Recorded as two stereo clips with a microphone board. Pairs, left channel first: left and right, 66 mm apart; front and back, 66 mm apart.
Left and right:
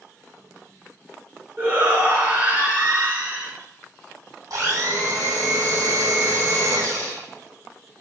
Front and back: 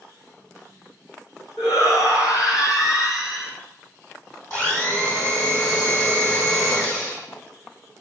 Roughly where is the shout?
Ahead right.